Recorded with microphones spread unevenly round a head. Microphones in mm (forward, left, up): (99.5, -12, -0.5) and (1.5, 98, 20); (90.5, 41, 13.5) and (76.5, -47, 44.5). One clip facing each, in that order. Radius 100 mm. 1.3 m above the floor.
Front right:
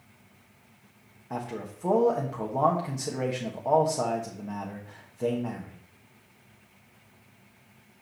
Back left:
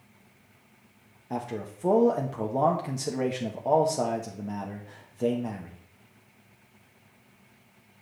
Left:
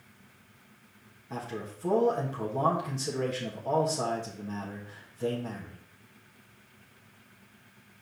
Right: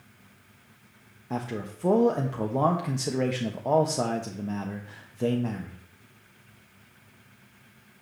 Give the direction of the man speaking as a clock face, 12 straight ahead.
5 o'clock.